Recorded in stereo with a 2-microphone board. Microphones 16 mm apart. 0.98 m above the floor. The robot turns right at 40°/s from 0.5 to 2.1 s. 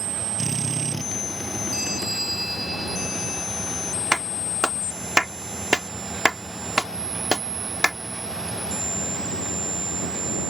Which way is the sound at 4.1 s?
45° right (ahead or behind).